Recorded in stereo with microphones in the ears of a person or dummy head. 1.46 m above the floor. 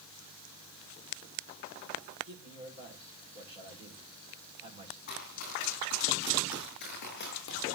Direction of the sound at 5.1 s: 50° left (ahead or behind).